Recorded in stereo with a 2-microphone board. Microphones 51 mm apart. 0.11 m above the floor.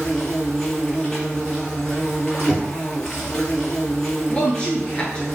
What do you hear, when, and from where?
0.0 s an insect: 10° left (ahead or behind), 0.8 m
2.5 s knocking: centre (ahead or behind), 1.8 m
4.3 s a woman speaking: 20° left (ahead or behind), 1.3 m